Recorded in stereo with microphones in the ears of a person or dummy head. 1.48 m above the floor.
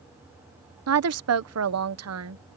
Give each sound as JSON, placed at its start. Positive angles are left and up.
{"t": 0.9, "sound": "a woman speaking", "side_deg": -75}